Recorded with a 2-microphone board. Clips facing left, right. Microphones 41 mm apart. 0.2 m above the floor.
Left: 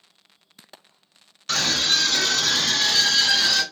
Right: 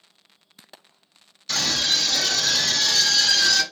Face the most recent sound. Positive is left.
turn(degrees=25)  # may be behind; listen again after turning